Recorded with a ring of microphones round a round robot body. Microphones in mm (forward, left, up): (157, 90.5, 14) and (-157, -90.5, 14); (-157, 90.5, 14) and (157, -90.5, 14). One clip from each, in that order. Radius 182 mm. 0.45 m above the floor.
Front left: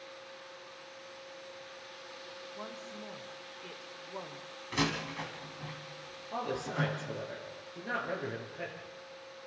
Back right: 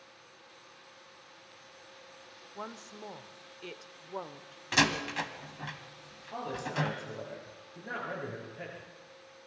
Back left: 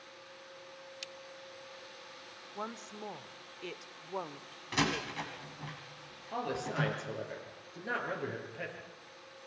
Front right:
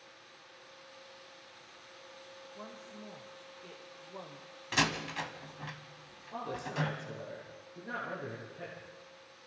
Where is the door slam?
100° right, 1.9 m.